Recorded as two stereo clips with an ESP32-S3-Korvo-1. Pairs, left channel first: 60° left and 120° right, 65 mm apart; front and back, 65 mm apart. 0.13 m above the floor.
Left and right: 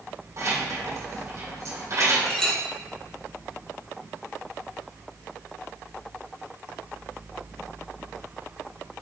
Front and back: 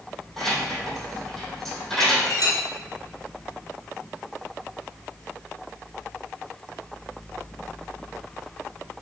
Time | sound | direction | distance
0.4 | keys jangling | 85° right | 3.5 m
2.3 | a clink | 20° right | 2 m